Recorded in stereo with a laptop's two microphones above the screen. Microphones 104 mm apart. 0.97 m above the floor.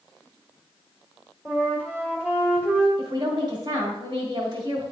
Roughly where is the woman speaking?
Right.